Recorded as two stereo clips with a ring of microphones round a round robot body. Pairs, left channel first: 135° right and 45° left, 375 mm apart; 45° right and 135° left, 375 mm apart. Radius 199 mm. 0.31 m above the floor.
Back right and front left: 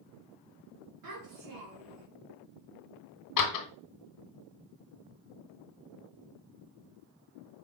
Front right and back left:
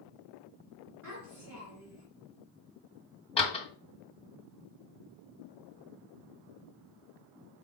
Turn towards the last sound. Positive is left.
turn(degrees=-115)